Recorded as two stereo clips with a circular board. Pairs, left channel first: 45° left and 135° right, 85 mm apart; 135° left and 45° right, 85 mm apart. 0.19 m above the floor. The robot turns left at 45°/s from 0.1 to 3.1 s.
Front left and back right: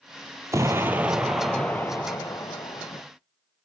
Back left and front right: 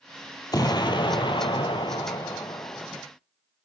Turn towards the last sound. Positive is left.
turn(degrees=60)